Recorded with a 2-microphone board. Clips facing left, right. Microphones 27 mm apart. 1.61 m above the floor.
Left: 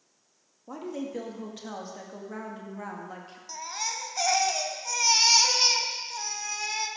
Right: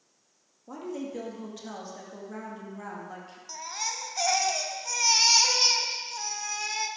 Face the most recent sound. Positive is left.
turn(degrees=0)  # may be behind; listen again after turning